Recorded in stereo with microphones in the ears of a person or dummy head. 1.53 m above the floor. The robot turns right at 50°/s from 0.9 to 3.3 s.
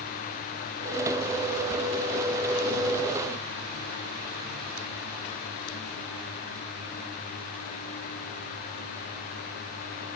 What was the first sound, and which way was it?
Only background noise.